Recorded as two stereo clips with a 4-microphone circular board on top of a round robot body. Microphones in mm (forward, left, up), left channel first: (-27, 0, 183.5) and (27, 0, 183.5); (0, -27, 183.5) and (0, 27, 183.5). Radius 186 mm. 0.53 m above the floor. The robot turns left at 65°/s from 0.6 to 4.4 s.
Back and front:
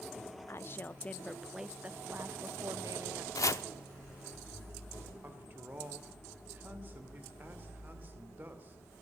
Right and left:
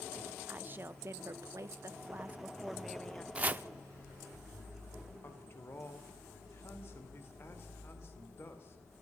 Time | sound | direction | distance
0.5 | a woman speaking | 145° left | 1.3 m
3.4 | chopping | 160° left | 0.8 m
5.2 | a man speaking | 50° right | 2.5 m